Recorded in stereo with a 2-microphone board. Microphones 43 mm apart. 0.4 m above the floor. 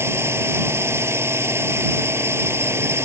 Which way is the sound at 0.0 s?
80° right.